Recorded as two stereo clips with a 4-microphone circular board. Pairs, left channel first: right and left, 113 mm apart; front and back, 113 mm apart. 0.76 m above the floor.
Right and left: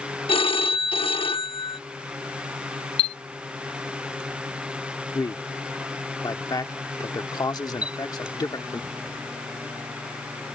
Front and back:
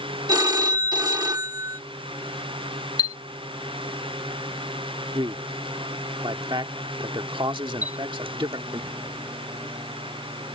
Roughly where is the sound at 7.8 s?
Left.